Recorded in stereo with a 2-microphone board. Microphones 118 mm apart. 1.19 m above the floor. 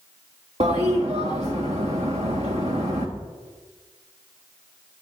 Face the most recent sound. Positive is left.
turn(degrees=-70)  # may be behind; listen again after turning